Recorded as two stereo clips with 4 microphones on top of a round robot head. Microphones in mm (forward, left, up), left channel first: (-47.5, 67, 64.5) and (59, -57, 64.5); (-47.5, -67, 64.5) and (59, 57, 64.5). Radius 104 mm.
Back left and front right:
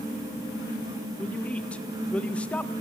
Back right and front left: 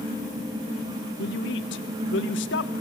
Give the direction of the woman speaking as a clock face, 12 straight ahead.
5 o'clock.